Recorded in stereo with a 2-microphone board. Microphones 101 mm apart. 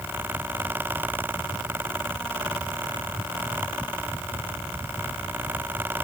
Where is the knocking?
I don't hear knocking.